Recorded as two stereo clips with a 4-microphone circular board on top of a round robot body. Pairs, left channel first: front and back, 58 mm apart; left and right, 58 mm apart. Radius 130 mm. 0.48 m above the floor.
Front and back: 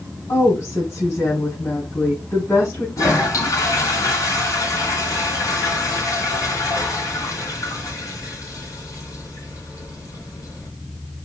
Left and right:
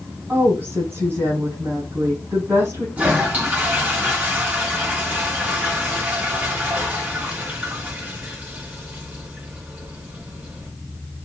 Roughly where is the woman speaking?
Ahead right.